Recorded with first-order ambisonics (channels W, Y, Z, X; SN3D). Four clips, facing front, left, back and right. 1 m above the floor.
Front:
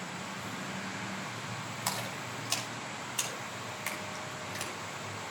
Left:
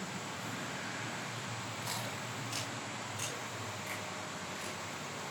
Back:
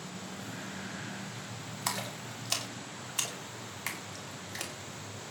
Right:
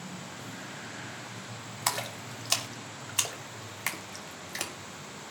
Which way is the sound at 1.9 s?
95° right.